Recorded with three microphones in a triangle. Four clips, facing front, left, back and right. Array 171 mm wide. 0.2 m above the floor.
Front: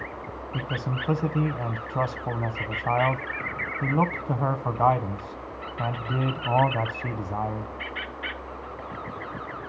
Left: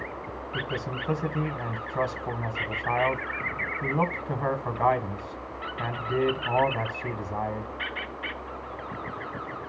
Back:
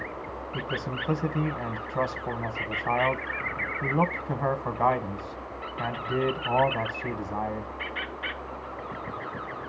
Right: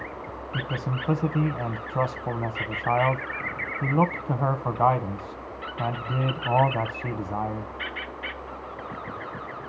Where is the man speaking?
60° right, 1.1 m.